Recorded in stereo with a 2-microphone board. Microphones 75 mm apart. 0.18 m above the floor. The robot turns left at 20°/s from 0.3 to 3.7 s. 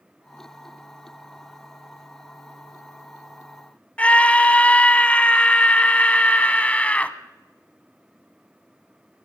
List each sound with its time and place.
4.0 s a scream: 20° left (ahead or behind), 1.0 m